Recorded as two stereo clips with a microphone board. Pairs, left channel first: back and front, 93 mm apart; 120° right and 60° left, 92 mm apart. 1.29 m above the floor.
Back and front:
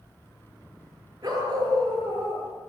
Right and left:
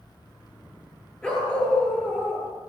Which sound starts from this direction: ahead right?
A dog barking, at 1.2 s.